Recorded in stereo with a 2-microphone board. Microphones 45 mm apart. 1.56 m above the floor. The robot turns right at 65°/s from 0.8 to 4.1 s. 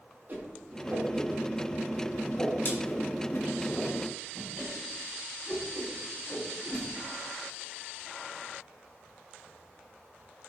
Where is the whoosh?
50° right (ahead or behind), 3 m; by 6.8 s 20° left (ahead or behind), 3 m.